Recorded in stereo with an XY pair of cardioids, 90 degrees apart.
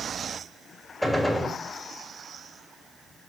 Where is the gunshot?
Straight ahead, 2.5 m.